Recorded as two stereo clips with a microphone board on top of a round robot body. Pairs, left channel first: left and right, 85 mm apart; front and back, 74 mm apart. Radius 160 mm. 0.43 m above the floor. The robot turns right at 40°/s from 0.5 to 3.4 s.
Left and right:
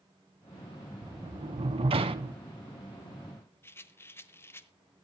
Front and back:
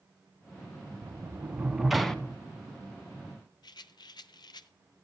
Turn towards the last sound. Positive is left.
turn(degrees=25)